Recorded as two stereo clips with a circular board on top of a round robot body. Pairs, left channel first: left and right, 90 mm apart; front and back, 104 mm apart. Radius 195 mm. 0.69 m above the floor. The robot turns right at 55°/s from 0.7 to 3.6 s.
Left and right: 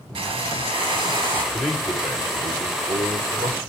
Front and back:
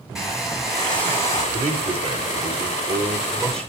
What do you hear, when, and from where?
0.1 s a hair dryer: 90° right, 4 m; by 1.4 s 50° right, 4 m
1.5 s a man speaking: 165° left, 3.5 m; by 3.7 s 80° right, 3.5 m